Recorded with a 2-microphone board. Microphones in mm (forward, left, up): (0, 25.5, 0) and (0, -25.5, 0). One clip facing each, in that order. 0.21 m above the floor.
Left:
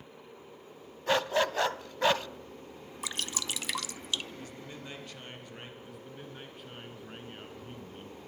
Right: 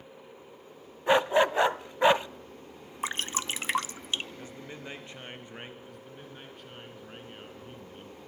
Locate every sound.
1.1 s a dog barking: 20° right (ahead or behind), 0.6 m
3.0 s dripping: 35° right (ahead or behind), 0.8 m
4.4 s a man speaking: 25° right (ahead or behind), 4 m
5.8 s a man speaking: 5° left (ahead or behind), 3 m